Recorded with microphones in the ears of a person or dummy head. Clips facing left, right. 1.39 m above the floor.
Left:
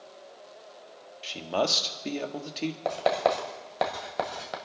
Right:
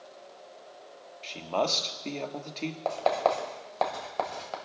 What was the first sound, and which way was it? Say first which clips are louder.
A man speaking: left 1 dB; 15° left (ahead or behind).